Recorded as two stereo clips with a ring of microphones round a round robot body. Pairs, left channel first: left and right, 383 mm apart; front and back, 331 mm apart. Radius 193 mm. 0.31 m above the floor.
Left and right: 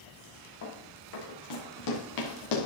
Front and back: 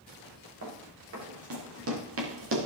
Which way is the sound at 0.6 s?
135° left.